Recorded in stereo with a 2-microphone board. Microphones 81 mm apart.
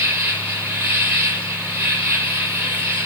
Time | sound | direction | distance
0.0 | an insect | 30° right (ahead or behind) | 4 m